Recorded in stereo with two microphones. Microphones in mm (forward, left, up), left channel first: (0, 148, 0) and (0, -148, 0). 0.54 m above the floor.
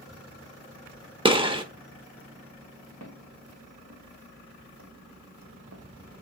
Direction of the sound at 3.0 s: 70° right (ahead or behind).